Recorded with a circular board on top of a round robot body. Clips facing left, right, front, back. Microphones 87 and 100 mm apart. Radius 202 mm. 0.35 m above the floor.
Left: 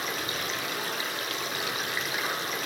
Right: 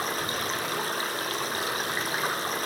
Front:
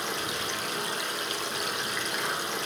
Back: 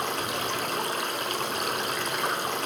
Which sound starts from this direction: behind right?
Running water, at 0.0 s.